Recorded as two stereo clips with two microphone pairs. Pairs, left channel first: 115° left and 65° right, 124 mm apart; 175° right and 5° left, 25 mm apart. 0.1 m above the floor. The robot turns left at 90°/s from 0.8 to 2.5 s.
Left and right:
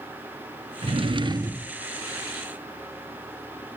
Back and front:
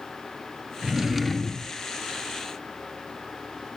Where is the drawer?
55° right, 0.6 m; by 1.7 s 135° right, 0.6 m.